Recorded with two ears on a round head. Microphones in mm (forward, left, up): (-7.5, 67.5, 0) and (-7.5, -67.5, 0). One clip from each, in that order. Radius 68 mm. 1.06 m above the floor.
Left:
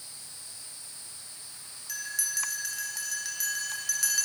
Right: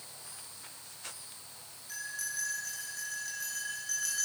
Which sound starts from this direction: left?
A bell, at 1.9 s.